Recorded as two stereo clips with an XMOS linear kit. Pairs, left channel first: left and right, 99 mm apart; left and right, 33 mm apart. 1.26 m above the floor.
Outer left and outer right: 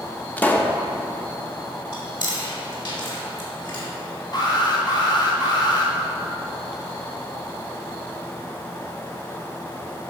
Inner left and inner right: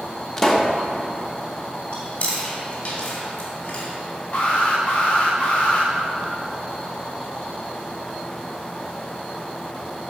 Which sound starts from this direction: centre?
A pop, at 0.4 s.